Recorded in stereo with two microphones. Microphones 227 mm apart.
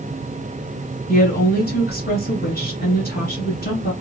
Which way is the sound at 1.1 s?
40° left (ahead or behind).